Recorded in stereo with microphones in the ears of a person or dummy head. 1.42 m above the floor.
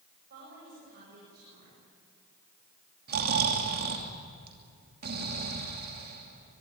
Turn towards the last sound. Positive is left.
turn(degrees=-50)  # may be behind; listen again after turning